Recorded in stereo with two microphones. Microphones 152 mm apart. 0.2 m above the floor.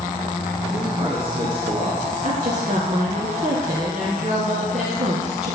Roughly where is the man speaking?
Right.